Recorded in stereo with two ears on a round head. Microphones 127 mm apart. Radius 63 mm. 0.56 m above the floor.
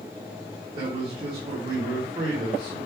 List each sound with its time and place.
0.8 s a man speaking: 35° right (ahead or behind), 2.5 m